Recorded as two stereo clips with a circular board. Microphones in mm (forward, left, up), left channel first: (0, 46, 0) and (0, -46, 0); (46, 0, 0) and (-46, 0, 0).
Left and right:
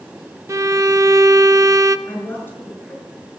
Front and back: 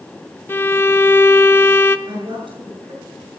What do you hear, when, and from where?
0.5 s a violin: 55° right, 0.5 m
2.1 s a woman speaking: 155° left, 7 m